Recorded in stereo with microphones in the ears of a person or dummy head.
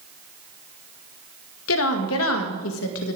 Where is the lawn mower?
No lawn mower in this recording.